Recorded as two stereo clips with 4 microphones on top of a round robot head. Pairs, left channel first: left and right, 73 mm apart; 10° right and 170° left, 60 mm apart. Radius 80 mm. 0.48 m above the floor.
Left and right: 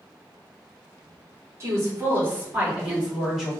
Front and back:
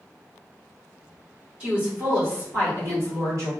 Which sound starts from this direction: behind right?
A woman speaking, at 1.6 s.